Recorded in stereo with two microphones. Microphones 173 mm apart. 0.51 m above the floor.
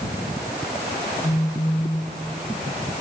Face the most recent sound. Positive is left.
turn(degrees=30)  # may be behind; listen again after turning